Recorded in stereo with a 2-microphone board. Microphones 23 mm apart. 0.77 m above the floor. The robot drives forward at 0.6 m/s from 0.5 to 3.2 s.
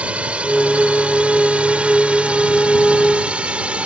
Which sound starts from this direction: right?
A drone, at 0.0 s.